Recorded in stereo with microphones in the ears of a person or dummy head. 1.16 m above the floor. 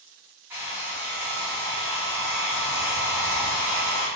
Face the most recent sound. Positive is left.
turn(degrees=-10)  # may be behind; listen again after turning